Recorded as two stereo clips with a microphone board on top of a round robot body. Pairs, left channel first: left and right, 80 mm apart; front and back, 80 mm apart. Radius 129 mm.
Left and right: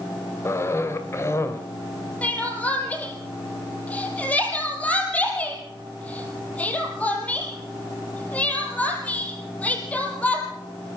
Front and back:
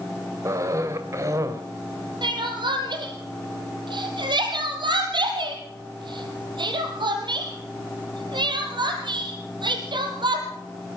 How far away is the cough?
About 3 m.